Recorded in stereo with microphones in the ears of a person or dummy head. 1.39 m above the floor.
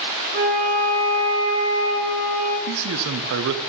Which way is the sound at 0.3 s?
50° right (ahead or behind).